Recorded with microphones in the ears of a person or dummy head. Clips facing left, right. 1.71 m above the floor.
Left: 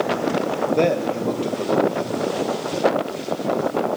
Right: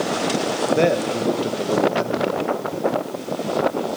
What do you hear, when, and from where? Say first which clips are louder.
0.7 s a man speaking: right 1 dB; 5° right (ahead or behind), 2.5 m